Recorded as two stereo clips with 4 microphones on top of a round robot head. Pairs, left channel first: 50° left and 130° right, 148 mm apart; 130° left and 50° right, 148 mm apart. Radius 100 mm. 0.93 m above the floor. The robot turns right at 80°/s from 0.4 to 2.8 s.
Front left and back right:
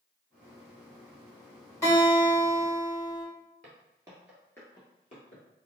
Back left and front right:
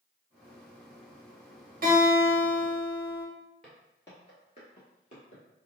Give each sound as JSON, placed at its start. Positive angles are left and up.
{"t": 1.8, "sound": "a guitar", "azimuth_deg": -25, "distance_m": 1.7}
{"t": 3.6, "sound": "footsteps", "azimuth_deg": -145, "distance_m": 1.0}